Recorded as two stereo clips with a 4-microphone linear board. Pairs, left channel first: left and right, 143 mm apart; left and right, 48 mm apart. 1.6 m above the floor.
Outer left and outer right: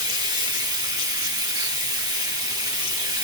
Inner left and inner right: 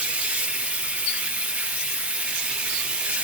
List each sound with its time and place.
0.0 s running water: 30° right (ahead or behind), 1.9 m